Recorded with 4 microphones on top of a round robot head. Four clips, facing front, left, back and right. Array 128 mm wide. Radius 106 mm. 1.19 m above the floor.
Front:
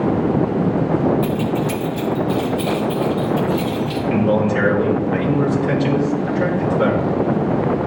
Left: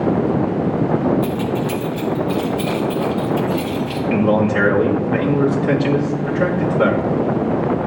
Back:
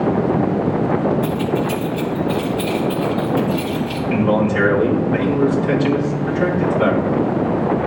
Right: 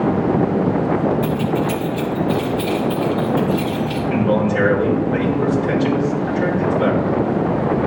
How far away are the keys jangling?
About 1.4 m.